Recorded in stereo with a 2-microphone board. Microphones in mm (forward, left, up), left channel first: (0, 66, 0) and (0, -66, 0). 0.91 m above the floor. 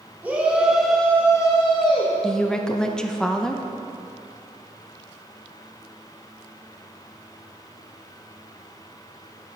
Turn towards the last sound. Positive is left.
turn(degrees=5)  # may be behind; listen again after turning